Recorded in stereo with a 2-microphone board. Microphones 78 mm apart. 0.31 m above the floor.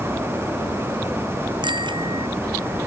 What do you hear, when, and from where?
1.6 s a bicycle bell: 80° right